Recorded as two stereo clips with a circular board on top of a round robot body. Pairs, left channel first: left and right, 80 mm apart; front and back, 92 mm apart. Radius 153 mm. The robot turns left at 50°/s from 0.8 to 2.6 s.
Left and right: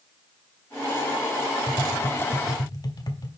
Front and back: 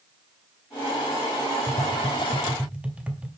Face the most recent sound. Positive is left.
turn(degrees=105)